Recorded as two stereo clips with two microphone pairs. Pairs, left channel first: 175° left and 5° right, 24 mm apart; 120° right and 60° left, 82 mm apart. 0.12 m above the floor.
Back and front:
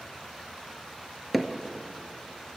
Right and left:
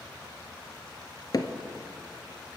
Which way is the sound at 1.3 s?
100° right.